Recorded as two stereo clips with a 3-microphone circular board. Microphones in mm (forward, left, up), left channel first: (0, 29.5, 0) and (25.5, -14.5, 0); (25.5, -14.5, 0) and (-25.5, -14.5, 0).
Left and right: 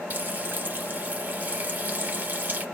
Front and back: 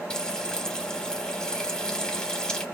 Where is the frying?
55° right, 1.3 m.